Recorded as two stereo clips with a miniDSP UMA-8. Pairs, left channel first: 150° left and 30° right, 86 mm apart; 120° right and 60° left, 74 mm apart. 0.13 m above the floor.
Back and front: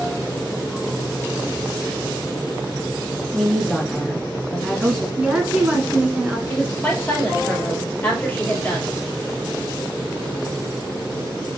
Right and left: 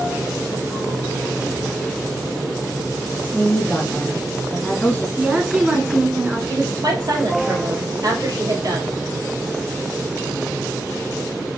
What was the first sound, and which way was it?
A woman speaking, 135° right.